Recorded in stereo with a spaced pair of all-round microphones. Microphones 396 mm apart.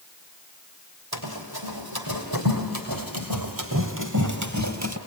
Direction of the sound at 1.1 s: 70° right (ahead or behind).